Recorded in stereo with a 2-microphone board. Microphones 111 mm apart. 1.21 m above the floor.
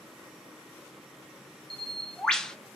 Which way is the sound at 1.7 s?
5° left (ahead or behind).